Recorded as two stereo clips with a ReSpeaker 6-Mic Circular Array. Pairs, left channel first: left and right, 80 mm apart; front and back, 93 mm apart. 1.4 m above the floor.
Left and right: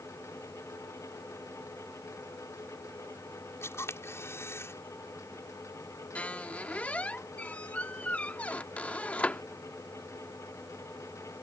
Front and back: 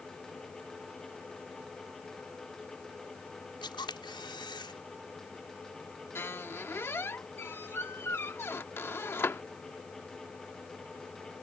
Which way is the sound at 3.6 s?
35° left.